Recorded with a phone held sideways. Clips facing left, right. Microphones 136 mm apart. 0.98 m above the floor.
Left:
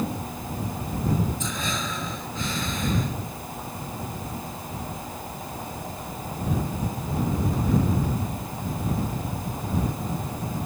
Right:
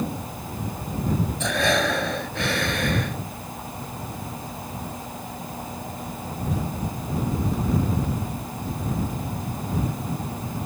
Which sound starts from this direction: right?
Breathing, at 1.4 s.